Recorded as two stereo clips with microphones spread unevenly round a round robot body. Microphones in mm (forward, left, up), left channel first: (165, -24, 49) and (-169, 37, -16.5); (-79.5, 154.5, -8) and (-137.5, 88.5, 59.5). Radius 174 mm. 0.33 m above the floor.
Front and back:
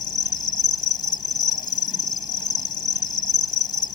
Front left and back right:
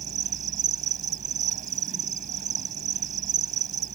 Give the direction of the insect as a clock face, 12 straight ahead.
3 o'clock.